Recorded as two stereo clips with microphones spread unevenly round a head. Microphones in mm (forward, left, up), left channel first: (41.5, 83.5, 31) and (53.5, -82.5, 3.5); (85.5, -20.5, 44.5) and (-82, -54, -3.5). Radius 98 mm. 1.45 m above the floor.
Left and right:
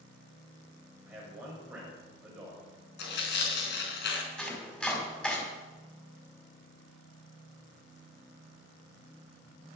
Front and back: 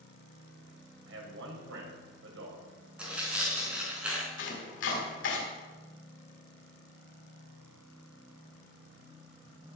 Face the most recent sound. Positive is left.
turn(degrees=10)